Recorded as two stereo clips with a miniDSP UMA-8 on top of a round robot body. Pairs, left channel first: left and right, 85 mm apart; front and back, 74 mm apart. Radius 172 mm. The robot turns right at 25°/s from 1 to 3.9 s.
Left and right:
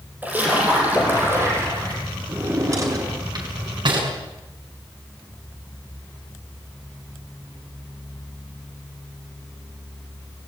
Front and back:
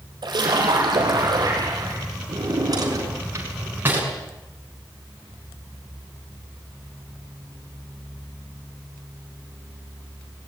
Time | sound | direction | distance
0.2 | a splash | 160° right | 6.5 m
2.3 | a drawer | 155° right | 6 m